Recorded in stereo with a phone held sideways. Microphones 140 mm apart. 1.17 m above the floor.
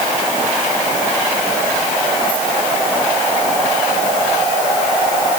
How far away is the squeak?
No squeak in this recording.